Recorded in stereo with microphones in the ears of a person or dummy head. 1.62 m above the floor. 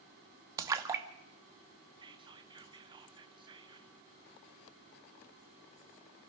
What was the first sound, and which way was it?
A splash, 15° right (ahead or behind).